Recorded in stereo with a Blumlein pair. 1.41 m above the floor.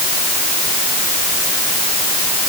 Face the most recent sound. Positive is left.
No sound to turn to.